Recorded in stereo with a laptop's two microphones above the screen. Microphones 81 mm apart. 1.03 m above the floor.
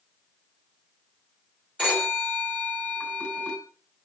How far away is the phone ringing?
About 2.5 m.